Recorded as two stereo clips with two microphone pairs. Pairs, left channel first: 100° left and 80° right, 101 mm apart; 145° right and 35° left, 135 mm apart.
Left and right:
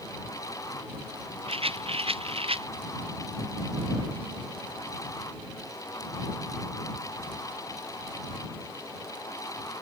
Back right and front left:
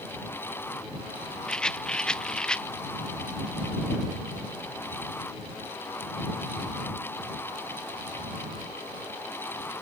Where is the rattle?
60° right.